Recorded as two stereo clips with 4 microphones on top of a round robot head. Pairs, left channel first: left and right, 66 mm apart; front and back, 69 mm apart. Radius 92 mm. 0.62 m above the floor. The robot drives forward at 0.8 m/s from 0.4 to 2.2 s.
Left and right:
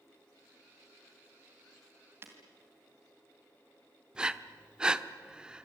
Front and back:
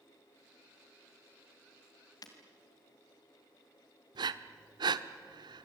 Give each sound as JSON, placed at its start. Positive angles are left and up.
{"t": 2.2, "sound": "breaking glass", "azimuth_deg": -35, "distance_m": 2.5}
{"t": 4.2, "sound": "breathing", "azimuth_deg": -170, "distance_m": 0.9}